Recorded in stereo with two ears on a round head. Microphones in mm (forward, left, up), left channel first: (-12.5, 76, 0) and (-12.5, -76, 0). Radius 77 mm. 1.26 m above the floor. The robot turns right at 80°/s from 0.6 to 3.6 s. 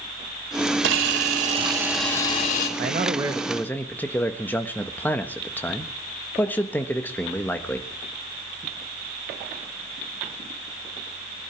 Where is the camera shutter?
90° right, 4 m; by 2.7 s 60° left, 4 m.